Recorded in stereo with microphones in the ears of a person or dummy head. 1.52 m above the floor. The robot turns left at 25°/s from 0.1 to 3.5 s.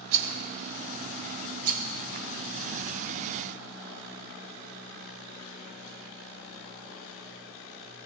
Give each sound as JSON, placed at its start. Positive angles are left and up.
{"t": 0.1, "sound": "a rattle", "side_deg": -70, "distance_m": 0.7}